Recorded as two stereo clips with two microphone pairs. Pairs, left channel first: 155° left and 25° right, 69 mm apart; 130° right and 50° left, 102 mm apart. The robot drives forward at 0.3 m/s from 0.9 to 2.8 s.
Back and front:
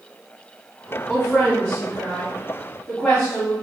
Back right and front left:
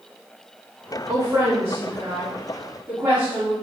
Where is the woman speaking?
100° left, 1.4 m; by 3.5 s 120° left, 1.5 m.